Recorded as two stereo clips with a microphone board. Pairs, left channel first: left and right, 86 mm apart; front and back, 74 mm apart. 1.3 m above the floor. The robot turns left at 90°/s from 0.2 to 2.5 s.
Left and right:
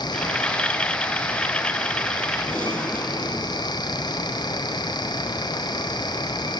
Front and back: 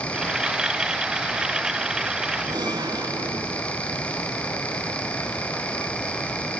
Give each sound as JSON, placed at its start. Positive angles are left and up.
{"t": 2.5, "sound": "a gunshot", "azimuth_deg": 170, "distance_m": 6.5}